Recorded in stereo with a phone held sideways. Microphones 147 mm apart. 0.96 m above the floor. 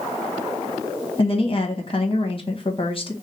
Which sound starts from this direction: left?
A woman speaking, at 1.2 s.